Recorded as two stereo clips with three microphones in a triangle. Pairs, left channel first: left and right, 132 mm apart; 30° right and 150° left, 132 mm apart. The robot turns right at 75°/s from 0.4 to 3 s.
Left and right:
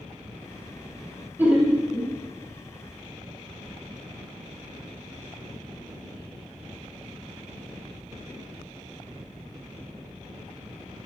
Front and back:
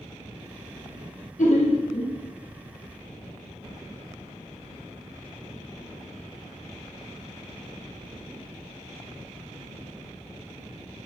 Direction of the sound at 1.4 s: 15° right.